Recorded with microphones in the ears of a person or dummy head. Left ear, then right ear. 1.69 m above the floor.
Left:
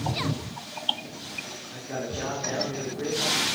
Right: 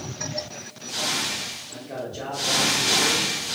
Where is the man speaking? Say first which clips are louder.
Even; 5° right (ahead or behind), 0.6 m.